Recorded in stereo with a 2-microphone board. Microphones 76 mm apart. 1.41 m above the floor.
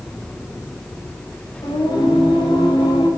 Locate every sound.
1.6 s singing: 90° left, 8 m